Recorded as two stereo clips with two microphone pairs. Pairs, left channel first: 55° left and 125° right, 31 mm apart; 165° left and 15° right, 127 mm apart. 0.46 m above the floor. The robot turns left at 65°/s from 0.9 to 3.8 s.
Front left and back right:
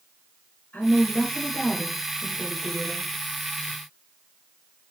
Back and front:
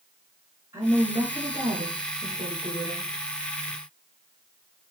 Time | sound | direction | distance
0.7 | a woman speaking | 55° left | 6 m